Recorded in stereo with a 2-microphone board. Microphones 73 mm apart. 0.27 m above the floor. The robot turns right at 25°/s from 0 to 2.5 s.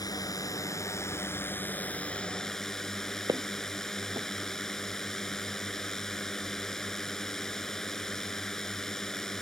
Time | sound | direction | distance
0.0 | a drone | 110° left | ?
3.3 | footsteps | 55° right (ahead or behind) | ?